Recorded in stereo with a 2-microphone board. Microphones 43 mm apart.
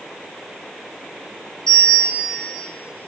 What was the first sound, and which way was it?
A bell, 15° left (ahead or behind).